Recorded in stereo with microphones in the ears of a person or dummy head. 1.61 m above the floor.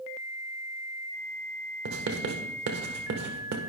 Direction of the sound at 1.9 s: 50° right (ahead or behind).